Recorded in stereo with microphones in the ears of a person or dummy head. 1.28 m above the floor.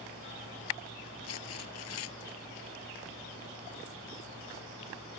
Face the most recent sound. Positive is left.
turn(degrees=90)